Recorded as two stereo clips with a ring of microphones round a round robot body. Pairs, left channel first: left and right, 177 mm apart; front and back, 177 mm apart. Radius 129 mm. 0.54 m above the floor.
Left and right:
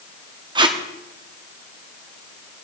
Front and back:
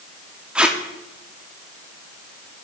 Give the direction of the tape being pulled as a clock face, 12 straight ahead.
3 o'clock.